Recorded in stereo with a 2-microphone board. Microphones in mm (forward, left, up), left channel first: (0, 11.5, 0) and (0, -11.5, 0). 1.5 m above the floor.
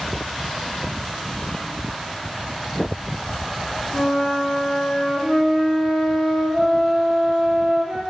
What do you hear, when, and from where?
3.9 s a flute: 60° left (ahead or behind), 1.2 m